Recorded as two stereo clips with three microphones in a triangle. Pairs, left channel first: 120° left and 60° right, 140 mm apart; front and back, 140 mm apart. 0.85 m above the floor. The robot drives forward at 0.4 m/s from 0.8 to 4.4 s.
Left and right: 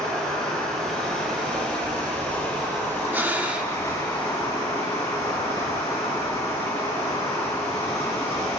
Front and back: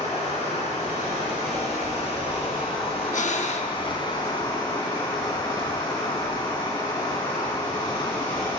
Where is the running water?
40° left, 3.5 m; by 8.6 s 60° left, 2.5 m.